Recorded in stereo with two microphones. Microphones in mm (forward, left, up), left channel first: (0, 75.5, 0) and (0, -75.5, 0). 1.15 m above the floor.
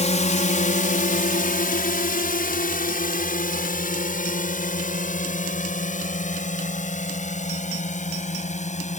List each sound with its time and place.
0.0 s a drone: 50° left (ahead or behind)